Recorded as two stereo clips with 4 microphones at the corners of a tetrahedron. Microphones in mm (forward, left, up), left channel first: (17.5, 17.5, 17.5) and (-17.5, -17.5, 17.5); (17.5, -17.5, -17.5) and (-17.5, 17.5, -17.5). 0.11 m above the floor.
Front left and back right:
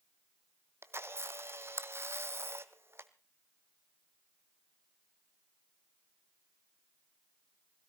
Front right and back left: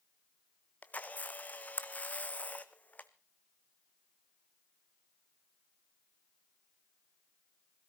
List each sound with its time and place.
0.8 s a camera shutter: 105° right, 0.8 m